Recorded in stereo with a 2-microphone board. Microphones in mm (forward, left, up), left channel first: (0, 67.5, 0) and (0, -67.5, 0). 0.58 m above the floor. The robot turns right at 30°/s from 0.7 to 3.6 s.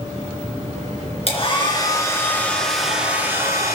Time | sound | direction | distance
1.3 | a hair dryer | 135° left | 3 m